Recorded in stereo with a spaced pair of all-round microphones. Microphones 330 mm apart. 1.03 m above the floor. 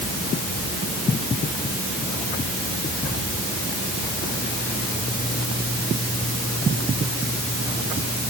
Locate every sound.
Only background noise.